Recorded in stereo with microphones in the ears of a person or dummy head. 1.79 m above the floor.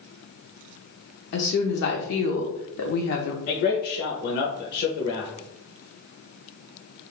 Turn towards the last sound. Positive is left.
turn(degrees=60)  # may be behind; listen again after turning